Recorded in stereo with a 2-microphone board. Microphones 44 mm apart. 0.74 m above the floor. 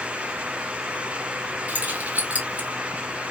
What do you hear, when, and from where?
1.7 s keys jangling: 35° right (ahead or behind), 1.5 m